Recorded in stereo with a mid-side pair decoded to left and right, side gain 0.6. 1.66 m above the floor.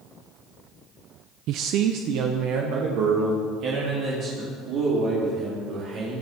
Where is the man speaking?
65° right, 0.6 m; by 6.2 s 60° right, 6 m.